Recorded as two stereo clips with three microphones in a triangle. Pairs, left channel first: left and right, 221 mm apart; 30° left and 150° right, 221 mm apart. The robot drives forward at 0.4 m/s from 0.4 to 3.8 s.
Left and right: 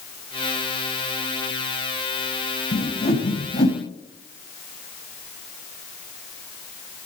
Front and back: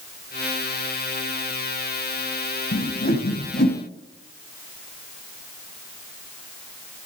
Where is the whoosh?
55° left, 2.0 m; by 3.8 s 65° left, 1.8 m.